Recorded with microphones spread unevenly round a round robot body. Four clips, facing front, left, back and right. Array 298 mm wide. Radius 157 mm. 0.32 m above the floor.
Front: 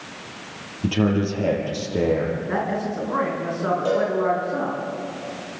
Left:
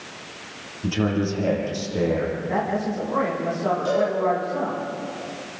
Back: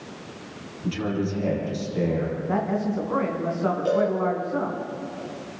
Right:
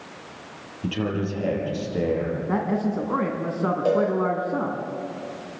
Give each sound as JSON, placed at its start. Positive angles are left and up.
{"t": 0.8, "sound": "a man speaking", "azimuth_deg": -10, "distance_m": 7.0}
{"t": 2.5, "sound": "a man speaking", "azimuth_deg": -90, "distance_m": 3.5}
{"t": 3.9, "sound": "a cowbell", "azimuth_deg": -75, "distance_m": 6.5}